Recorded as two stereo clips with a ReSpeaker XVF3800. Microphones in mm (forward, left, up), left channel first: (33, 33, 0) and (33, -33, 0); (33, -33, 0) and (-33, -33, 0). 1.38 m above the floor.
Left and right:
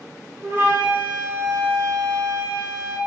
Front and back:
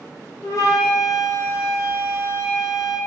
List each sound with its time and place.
0.4 s a flute: 35° right, 0.9 m